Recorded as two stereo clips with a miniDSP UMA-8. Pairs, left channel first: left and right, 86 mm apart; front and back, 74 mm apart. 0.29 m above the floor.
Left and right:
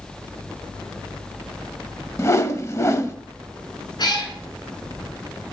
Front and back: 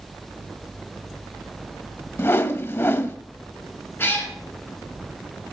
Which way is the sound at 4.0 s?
55° left.